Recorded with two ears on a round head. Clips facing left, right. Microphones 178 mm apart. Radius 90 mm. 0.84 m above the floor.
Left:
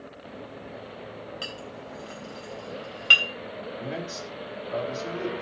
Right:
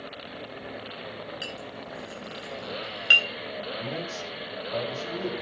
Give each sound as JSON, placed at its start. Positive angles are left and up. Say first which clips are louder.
{"t": 1.4, "sound": "a clink", "louder": "even", "side_deg": -10, "distance_m": 3.0}
{"t": 3.8, "sound": "a man speaking", "louder": "even", "side_deg": 10, "distance_m": 6.0}